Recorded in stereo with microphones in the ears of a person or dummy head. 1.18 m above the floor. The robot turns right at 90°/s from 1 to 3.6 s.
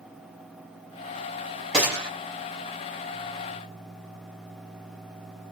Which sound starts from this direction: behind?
A gunshot, at 1.7 s.